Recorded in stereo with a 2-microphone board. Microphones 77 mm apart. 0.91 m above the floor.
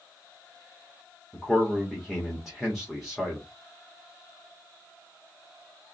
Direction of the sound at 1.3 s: Centre (ahead or behind).